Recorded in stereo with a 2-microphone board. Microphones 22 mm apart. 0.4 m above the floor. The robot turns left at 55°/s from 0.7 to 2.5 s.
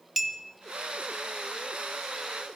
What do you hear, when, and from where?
0.2 s a clink: 15° right (ahead or behind), 0.5 m